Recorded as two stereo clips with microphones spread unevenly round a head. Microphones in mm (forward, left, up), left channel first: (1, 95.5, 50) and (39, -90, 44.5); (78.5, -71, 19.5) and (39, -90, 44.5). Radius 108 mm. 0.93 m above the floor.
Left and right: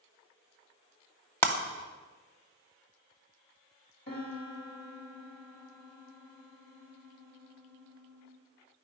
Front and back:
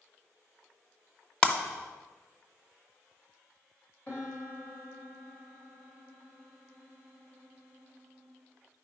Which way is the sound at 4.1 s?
60° left.